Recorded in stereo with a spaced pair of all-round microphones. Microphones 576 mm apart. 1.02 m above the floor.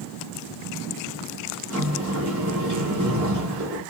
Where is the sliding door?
30° right (ahead or behind), 1.2 m.